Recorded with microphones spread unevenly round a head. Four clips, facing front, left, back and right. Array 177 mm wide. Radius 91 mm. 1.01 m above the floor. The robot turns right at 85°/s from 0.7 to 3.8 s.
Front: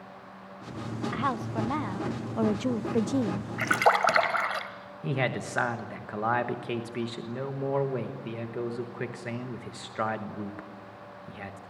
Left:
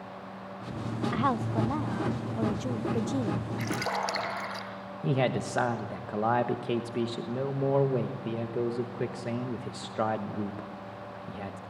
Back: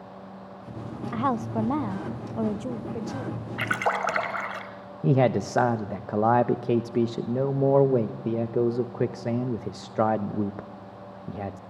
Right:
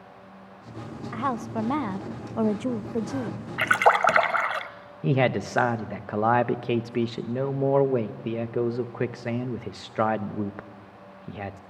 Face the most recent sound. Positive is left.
turn(degrees=-155)